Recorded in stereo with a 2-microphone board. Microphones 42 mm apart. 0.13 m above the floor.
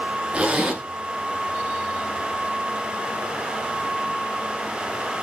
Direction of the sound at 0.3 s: 30° right (ahead or behind).